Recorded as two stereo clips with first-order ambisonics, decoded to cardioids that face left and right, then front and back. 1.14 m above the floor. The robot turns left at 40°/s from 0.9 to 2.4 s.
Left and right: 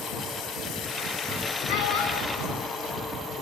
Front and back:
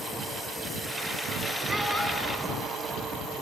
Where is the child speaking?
95° left, 5 m; by 2.5 s 65° left, 5 m.